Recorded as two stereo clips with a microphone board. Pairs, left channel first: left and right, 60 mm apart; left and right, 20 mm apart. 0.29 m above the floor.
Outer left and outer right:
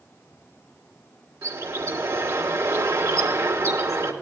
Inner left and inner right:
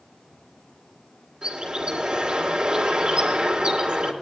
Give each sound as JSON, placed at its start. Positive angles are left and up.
{"t": 1.4, "sound": "a bird", "side_deg": -65, "distance_m": 3.0}